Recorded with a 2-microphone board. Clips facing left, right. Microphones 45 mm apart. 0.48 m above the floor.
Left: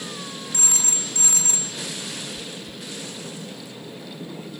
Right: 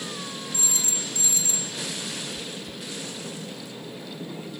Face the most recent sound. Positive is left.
turn(degrees=-70)  # may be behind; listen again after turning